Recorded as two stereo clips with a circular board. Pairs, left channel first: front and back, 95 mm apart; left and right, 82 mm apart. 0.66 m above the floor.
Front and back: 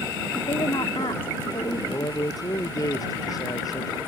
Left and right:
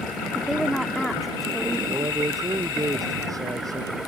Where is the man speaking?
45° right.